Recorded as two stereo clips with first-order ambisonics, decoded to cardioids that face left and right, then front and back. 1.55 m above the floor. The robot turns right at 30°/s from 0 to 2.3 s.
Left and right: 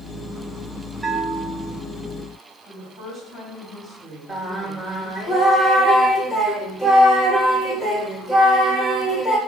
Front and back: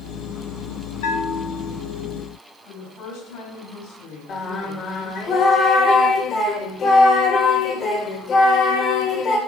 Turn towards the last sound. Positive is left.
turn(degrees=20)